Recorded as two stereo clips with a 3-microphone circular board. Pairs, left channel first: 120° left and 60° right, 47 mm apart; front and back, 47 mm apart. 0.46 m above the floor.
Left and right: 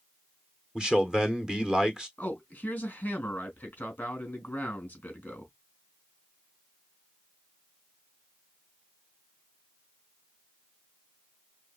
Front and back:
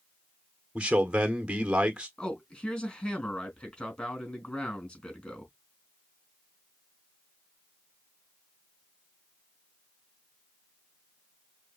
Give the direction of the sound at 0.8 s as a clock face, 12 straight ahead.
4 o'clock.